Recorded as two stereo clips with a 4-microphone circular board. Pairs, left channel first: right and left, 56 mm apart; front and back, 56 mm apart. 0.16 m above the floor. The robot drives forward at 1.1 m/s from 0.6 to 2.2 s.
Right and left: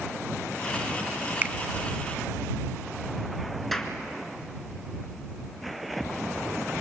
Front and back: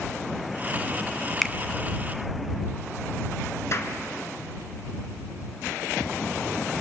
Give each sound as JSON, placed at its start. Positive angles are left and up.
{"t": 1.4, "sound": "a finger snap", "azimuth_deg": 80, "distance_m": 0.9}
{"t": 3.7, "sound": "a clap", "azimuth_deg": -5, "distance_m": 1.8}